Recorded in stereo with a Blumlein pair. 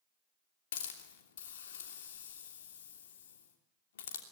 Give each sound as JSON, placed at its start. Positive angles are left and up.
{"t": 0.7, "sound": "a hiss", "azimuth_deg": 60, "distance_m": 3.0}